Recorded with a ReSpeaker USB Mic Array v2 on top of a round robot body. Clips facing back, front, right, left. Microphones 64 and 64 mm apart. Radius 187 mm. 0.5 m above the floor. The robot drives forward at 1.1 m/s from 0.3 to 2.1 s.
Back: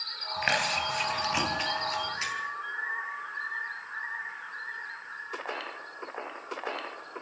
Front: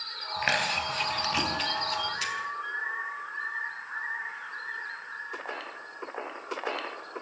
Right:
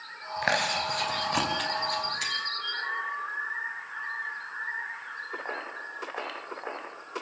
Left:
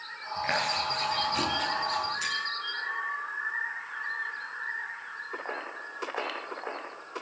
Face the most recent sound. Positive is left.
turn(degrees=-120)